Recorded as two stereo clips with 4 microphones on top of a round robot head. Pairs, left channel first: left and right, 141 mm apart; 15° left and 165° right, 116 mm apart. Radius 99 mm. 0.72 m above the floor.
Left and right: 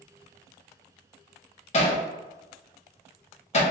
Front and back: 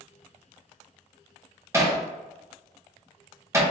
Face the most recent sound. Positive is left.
turn(degrees=130)